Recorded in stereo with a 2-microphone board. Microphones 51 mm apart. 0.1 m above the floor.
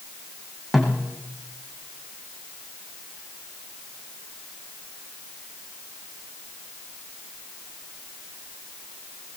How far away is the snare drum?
About 5 m.